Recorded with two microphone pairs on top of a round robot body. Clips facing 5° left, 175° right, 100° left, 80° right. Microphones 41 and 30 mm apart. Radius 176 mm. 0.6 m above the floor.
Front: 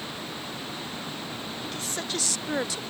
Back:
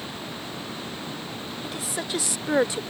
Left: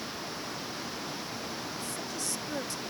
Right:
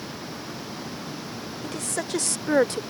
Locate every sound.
1.6 s a woman speaking: 95° right; by 2.8 s 115° right